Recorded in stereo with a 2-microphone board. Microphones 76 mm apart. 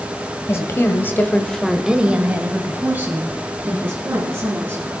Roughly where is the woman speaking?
Left.